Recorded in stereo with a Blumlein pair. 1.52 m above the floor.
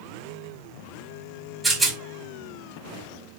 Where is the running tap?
I don't hear a running tap.